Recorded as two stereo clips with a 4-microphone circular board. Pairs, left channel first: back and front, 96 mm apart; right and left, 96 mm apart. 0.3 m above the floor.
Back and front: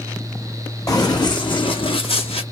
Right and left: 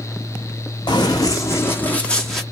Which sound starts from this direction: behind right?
Running footsteps, at 0.9 s.